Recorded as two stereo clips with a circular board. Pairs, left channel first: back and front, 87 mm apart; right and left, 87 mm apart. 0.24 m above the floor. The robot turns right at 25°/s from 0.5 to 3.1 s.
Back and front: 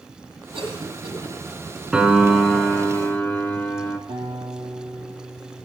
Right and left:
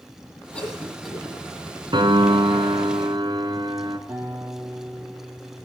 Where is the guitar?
25° left, 6 m.